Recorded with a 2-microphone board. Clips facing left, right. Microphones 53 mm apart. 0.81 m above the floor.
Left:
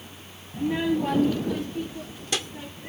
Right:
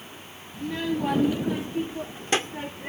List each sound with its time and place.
0.5 s a child speaking: 35° left (ahead or behind); by 2.9 s 40° right (ahead or behind)